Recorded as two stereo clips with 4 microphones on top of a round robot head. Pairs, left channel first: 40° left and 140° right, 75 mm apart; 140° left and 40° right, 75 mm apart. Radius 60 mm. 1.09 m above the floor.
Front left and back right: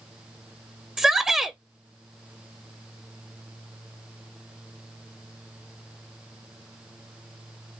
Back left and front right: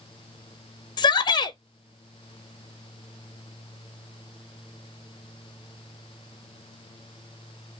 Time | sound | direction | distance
1.0 | a shout | 140° left | 0.6 m